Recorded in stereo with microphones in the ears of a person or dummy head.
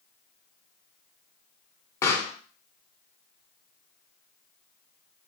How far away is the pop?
About 0.7 m.